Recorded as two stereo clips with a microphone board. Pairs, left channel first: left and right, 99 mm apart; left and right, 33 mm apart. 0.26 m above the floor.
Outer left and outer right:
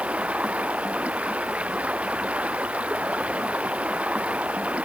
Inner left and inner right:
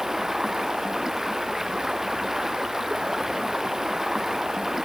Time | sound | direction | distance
0.0 | running water | 10° right (ahead or behind) | ?